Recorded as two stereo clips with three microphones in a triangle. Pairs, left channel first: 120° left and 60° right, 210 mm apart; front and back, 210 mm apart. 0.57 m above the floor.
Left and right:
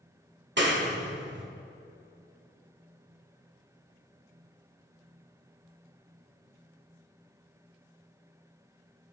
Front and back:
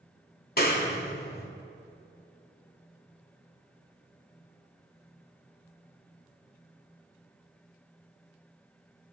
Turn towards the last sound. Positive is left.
turn(degrees=-35)